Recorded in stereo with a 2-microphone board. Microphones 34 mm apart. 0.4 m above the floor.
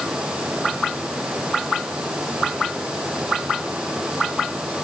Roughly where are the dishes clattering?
I don't hear dishes clattering.